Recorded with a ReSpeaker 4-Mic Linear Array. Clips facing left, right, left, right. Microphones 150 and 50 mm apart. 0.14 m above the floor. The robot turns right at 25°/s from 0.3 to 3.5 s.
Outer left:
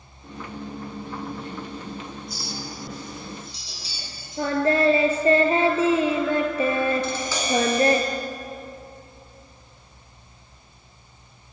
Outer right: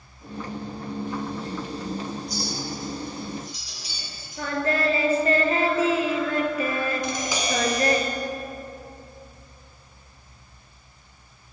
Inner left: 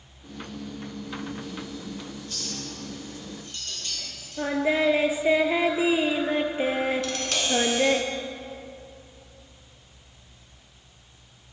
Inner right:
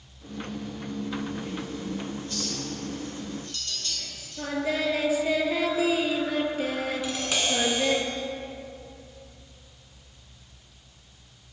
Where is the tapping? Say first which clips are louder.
Outer left 1 dB, even; 15° right (ahead or behind), 1.1 m.